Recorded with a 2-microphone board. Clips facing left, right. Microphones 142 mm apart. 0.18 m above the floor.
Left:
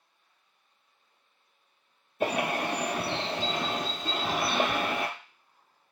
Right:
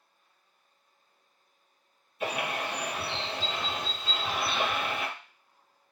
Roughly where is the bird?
Left.